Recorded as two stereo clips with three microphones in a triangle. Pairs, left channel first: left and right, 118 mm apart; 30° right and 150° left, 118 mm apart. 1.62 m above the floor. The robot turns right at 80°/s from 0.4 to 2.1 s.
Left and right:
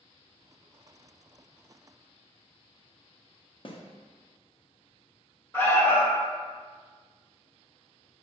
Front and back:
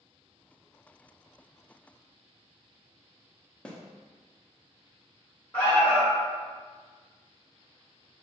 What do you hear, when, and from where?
3.6 s a snare drum: 50° left, 0.6 m
5.5 s an alarm: 35° left, 1.0 m